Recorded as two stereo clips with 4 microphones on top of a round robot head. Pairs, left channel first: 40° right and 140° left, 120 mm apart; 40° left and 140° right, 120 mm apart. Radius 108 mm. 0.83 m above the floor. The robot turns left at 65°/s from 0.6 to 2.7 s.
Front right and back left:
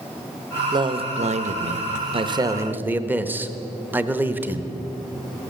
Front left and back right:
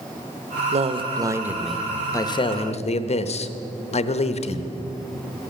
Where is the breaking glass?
No breaking glass in this recording.